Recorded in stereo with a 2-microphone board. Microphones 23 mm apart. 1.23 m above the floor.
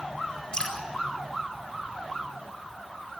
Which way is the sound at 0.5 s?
35° left (ahead or behind).